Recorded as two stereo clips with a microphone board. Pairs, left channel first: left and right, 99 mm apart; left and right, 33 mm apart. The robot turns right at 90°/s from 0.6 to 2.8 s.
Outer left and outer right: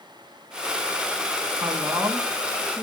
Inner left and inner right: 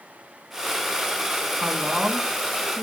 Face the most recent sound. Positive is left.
turn(degrees=25)